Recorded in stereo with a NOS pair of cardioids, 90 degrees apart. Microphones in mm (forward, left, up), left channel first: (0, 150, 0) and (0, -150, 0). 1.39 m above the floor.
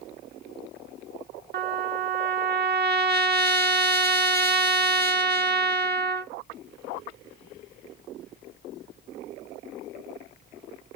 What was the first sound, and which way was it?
A trumpet, 35° right.